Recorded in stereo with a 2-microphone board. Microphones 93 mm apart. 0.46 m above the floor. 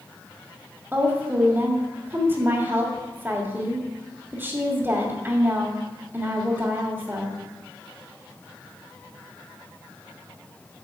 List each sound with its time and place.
0.9 s a woman speaking: 25° right (ahead or behind), 1.6 m